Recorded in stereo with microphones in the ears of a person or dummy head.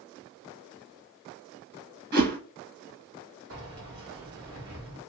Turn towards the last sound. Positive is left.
turn(degrees=-60)  # may be behind; listen again after turning